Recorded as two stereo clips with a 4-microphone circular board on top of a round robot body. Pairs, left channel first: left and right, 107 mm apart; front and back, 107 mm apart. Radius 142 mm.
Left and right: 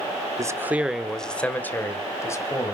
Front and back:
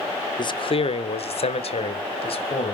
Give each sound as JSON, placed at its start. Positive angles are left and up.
{"t": 0.4, "sound": "a man speaking", "azimuth_deg": -35, "distance_m": 1.6}